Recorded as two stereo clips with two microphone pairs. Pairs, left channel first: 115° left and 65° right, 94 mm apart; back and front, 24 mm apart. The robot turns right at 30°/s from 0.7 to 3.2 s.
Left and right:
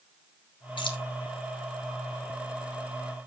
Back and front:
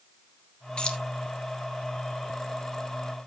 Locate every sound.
0.8 s keys jangling: 140° left, 1.4 m; by 1.0 s 150° left, 1.4 m